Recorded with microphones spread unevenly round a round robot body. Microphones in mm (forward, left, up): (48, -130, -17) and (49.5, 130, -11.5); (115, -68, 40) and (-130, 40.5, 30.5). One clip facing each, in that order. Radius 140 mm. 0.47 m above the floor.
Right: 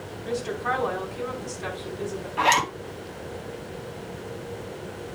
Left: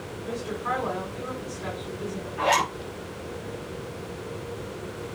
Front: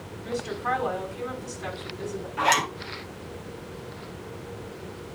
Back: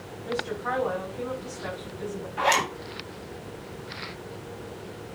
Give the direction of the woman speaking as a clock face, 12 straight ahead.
2 o'clock.